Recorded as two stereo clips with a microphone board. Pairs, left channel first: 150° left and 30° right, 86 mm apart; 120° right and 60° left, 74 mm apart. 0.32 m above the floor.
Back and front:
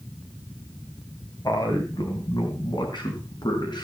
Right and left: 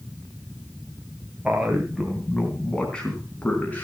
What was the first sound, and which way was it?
A man speaking, 130° left.